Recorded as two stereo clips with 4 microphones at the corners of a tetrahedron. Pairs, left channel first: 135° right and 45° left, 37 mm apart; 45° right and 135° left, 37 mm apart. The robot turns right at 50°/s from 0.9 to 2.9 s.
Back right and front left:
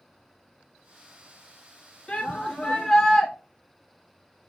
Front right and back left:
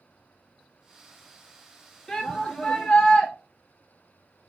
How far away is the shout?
About 1.3 m.